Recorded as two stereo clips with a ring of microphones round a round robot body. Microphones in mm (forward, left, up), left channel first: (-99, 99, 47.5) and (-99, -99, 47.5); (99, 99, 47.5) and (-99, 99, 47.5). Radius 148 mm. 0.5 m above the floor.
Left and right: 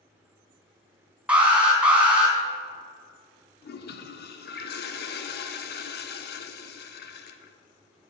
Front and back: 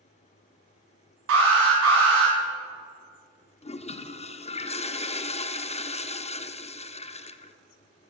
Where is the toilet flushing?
55° left, 0.7 m.